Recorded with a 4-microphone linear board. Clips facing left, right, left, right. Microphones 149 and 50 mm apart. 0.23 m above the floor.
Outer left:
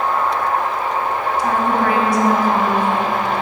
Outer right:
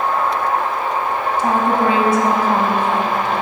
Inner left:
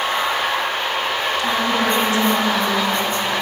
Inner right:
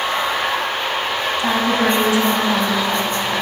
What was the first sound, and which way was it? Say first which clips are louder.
A woman speaking: outer right 2 dB, inner right 3 dB; 25° right (ahead or behind).